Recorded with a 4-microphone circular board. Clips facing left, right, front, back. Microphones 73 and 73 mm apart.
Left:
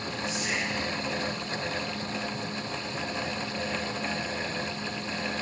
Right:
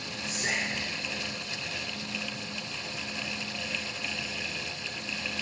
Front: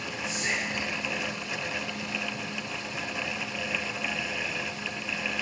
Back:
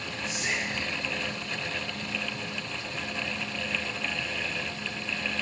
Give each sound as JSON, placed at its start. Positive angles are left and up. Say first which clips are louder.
{"t": 0.2, "sound": "whispering", "louder": "even, even", "azimuth_deg": -90, "distance_m": 1.7}